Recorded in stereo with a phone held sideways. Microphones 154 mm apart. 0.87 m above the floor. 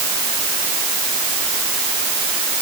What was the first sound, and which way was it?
Only background noise.